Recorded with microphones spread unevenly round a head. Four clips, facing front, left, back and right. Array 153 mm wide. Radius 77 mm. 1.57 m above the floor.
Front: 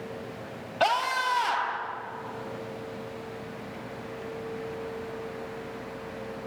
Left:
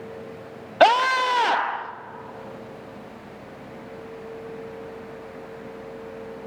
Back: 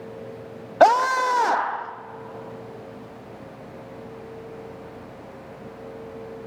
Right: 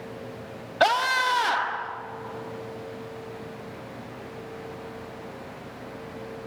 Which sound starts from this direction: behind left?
A scream, at 0.8 s.